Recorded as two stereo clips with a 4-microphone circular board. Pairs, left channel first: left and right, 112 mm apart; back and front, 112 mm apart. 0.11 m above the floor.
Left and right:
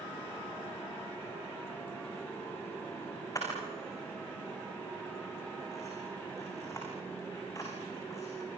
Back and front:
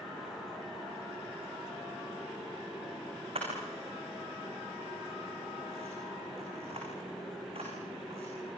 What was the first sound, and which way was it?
A camera shutter, 30° left.